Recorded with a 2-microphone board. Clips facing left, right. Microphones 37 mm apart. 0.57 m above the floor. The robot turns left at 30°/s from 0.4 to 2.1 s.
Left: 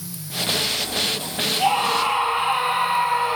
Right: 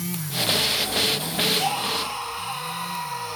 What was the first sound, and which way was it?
A scream, 20° left (ahead or behind).